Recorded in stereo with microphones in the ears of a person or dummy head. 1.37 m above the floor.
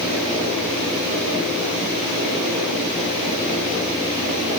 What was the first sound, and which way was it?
Only background noise.